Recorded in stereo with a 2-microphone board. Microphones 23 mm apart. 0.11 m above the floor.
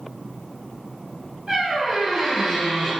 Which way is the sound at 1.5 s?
25° right (ahead or behind).